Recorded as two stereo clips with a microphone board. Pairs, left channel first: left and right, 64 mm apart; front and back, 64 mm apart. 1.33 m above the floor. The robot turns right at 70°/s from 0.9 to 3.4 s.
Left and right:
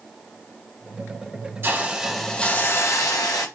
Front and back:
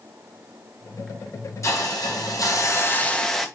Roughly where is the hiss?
Ahead right.